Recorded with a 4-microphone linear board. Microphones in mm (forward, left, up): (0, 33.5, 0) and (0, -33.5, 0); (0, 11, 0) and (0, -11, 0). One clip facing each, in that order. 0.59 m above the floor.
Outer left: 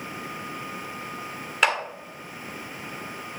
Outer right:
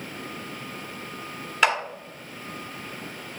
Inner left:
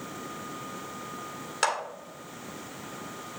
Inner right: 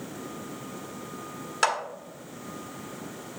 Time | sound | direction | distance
1.6 | a clap | centre (ahead or behind) | 1.7 m